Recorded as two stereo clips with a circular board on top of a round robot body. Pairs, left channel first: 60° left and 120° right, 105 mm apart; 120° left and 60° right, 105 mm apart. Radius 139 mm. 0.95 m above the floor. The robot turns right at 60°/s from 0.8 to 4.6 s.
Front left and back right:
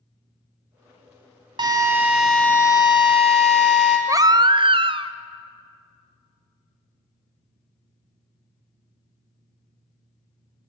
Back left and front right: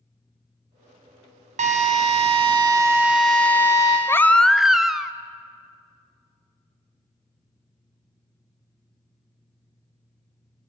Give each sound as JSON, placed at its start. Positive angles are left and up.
{"t": 1.6, "sound": "a drill", "azimuth_deg": -70, "distance_m": 0.8}
{"t": 4.1, "sound": "a baby crying", "azimuth_deg": -175, "distance_m": 0.5}